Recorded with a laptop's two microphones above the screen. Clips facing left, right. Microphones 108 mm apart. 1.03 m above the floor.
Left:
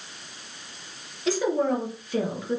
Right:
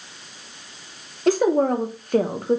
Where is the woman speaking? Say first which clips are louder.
Right 6 dB; 55° right (ahead or behind), 0.8 m.